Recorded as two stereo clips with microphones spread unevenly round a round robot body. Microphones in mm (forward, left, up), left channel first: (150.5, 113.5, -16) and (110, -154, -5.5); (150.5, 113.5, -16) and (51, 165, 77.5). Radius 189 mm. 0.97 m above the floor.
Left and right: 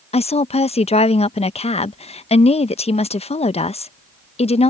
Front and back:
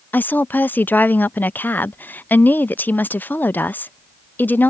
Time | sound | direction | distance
0.1 | a woman speaking | 15° left | ?